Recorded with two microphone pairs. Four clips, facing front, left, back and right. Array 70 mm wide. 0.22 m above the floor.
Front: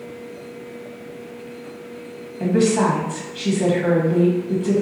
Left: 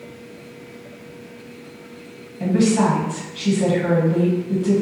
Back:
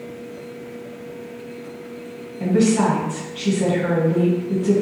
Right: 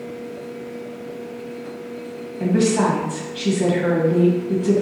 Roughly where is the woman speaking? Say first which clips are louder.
Even, even; ahead right.